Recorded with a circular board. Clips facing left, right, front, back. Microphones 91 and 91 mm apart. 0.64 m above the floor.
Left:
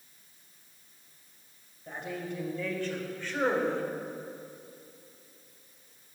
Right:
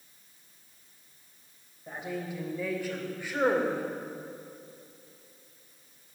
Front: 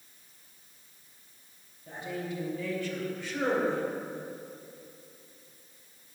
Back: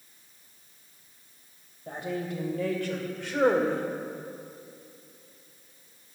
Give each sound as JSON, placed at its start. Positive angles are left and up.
{"t": 1.9, "sound": "a woman speaking", "azimuth_deg": -175, "distance_m": 2.5}